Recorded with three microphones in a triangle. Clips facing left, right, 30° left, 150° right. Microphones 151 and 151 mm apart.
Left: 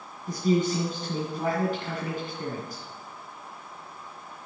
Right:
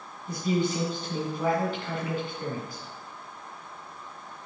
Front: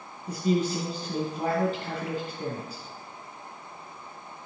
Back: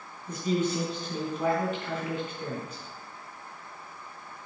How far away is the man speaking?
About 2.5 m.